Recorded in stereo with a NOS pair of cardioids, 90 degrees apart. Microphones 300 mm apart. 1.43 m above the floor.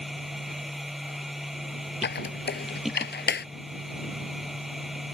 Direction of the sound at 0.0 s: Straight ahead.